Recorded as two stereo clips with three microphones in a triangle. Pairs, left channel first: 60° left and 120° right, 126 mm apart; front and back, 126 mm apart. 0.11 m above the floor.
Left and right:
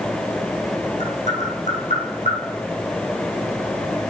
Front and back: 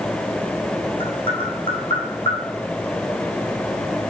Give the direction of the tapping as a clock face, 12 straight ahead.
11 o'clock.